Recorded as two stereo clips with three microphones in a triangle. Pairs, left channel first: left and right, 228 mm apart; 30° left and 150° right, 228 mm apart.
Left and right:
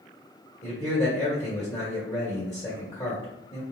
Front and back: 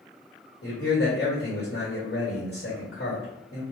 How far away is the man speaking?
About 1.3 m.